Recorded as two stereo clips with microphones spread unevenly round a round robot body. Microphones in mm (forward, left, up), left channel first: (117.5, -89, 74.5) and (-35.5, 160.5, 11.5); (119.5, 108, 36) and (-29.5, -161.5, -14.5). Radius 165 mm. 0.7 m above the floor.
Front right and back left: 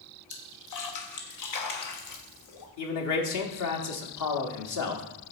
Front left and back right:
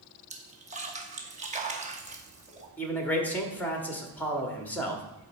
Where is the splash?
65° right, 1.1 m.